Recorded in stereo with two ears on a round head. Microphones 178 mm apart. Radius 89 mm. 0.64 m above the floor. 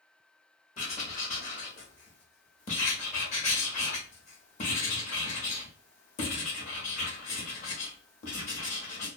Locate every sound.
0.8 s writing: 35° left (ahead or behind), 0.8 m